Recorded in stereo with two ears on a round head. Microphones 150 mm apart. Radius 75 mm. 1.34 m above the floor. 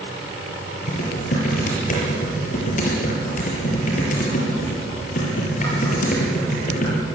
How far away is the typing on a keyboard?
About 6.5 m.